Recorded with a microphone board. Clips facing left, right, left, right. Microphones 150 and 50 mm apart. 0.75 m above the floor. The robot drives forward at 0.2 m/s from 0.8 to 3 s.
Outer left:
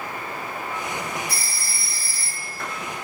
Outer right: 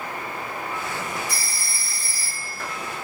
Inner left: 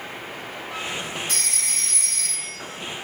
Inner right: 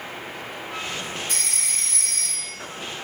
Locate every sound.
1.3 s a phone ringing: 65° left (ahead or behind), 1.6 m; by 2.5 s 60° left (ahead or behind), 1.7 m